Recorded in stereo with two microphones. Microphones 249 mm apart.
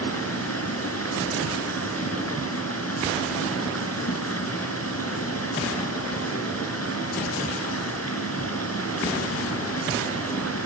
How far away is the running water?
About 3 m.